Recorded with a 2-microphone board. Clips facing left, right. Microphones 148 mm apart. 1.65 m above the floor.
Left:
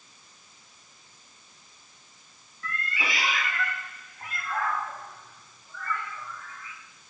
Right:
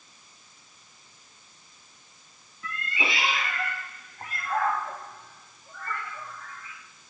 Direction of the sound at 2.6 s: 20° right (ahead or behind).